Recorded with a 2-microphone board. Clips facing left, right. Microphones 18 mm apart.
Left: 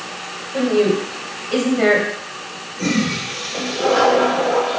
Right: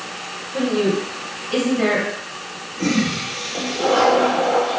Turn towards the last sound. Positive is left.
turn(degrees=20)  # may be behind; listen again after turning